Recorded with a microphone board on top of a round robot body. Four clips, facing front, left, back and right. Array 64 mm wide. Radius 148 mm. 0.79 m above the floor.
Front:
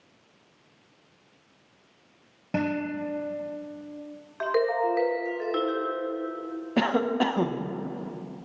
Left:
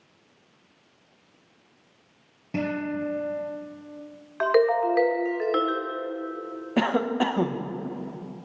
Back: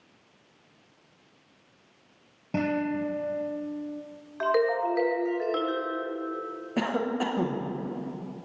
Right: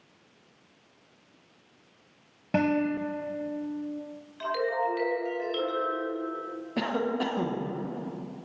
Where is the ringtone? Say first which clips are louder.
Left 8 dB, even; 85° left, 1.1 m.